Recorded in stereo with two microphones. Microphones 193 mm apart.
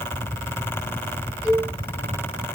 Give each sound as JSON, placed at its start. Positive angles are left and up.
{"t": 1.4, "sound": "a cowbell", "side_deg": -10, "distance_m": 3.5}